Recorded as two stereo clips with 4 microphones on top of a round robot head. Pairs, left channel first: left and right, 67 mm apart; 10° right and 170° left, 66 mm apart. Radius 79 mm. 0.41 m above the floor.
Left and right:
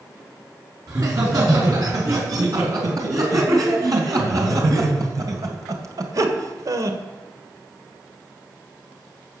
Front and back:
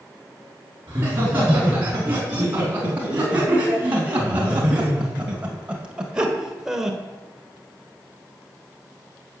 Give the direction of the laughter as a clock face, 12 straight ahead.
4 o'clock.